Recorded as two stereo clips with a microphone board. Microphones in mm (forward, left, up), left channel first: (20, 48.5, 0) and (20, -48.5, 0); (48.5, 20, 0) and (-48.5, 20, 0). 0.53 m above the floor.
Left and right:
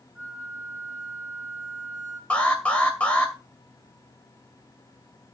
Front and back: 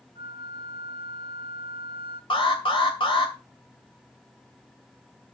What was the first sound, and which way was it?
A flute, straight behind.